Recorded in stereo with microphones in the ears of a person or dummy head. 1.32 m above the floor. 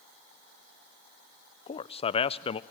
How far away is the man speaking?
About 0.5 m.